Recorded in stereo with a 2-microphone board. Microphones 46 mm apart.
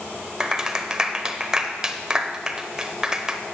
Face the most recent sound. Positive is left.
turn(degrees=-15)  # may be behind; listen again after turning